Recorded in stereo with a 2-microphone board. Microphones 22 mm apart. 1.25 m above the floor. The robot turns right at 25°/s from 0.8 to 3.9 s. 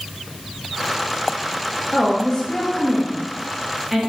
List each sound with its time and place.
1.9 s a woman speaking: 150° left, 1.5 m; by 4.0 s 160° right, 1.5 m